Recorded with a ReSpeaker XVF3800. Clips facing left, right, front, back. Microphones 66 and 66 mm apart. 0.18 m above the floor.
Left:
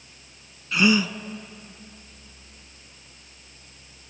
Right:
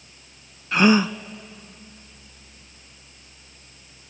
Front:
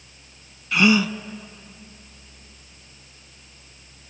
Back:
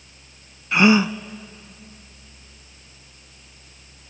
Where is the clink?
I don't hear a clink.